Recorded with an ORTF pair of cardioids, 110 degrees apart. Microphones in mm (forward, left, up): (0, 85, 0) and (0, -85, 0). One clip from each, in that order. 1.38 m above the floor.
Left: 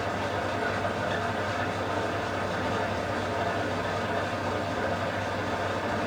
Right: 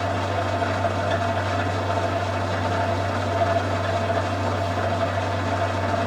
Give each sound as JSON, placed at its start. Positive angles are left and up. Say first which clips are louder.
{"t": 0.0, "sound": "an engine running", "louder": "right 5 dB", "azimuth_deg": -35, "distance_m": 6.5}